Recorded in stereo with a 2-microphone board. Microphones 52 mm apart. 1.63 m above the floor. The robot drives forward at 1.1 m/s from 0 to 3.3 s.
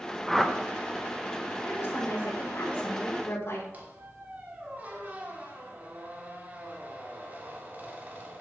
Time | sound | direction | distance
0.3 | a whoosh | centre (ahead or behind) | 0.9 m
1.6 | a woman speaking | 45° left (ahead or behind) | 5.5 m
3.7 | a squeak | 30° right (ahead or behind) | 2 m